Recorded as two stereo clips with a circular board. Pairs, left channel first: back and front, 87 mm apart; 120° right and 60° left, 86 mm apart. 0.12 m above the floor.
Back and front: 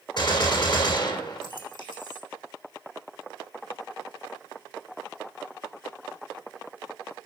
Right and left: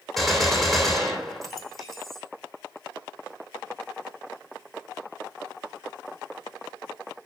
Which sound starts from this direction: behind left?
A gunshot, at 0.2 s.